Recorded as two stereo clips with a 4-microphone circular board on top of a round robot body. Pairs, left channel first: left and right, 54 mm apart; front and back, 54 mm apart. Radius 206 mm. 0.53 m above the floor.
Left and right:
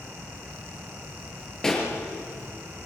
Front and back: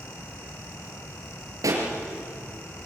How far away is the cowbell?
No cowbell in this recording.